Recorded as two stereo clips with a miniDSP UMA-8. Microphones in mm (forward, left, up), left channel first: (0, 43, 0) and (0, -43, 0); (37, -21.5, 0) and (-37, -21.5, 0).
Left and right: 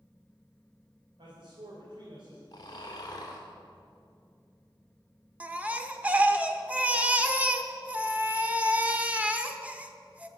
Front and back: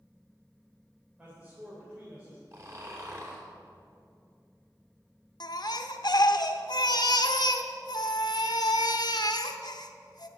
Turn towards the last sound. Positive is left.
turn(degrees=-15)